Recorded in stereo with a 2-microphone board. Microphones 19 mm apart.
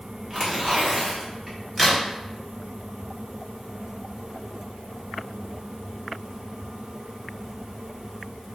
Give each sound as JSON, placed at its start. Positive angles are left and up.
{"t": 0.3, "sound": "tearing paper", "side_deg": -20, "distance_m": 1.3}
{"t": 1.8, "sound": "a crack", "side_deg": 5, "distance_m": 1.3}